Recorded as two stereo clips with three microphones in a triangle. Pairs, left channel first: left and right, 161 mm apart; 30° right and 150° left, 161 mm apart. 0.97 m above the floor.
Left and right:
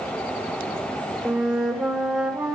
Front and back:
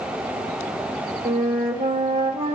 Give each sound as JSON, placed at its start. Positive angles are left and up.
{"t": 1.2, "sound": "a flute", "azimuth_deg": 180, "distance_m": 1.2}